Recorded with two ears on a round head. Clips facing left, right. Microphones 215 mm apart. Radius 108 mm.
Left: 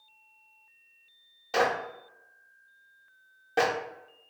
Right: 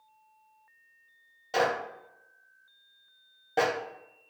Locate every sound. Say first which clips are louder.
1.5 s a clap: left 1 dB; 5° left (ahead or behind), 0.8 m